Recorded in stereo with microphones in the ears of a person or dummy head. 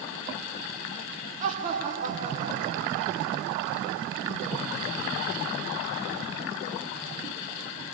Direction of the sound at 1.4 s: 40° right (ahead or behind).